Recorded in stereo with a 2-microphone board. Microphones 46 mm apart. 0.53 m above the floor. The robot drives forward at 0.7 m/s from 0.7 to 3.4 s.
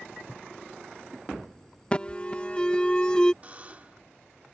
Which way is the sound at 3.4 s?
30° right (ahead or behind).